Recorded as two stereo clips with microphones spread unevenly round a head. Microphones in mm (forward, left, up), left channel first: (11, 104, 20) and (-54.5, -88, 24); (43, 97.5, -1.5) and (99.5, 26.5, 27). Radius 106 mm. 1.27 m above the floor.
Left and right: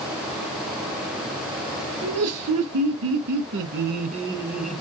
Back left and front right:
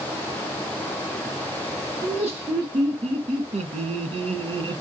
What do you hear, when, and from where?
2.0 s laughter: 110° right, 1.6 m; by 4.8 s 15° right, 0.8 m